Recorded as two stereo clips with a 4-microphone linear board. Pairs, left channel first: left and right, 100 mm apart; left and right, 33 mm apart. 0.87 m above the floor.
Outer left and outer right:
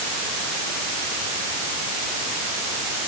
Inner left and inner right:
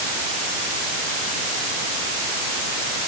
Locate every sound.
Only background noise.